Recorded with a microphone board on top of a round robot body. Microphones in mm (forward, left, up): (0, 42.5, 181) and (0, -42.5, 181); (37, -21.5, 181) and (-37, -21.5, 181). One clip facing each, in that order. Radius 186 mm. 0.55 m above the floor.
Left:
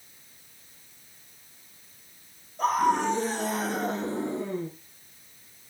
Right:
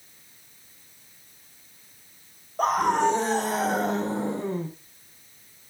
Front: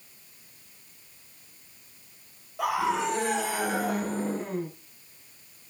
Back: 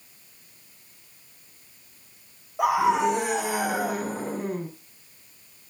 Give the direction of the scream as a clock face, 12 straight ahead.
4 o'clock.